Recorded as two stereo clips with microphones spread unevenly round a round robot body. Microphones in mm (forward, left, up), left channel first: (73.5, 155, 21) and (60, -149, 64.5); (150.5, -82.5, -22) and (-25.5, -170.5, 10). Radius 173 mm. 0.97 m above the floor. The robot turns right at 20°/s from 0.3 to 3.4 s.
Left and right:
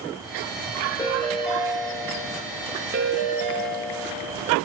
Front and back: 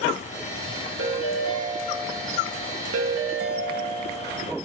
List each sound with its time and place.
1.0 s a ringtone: 165° left, 0.8 m; by 4.3 s 145° right, 0.8 m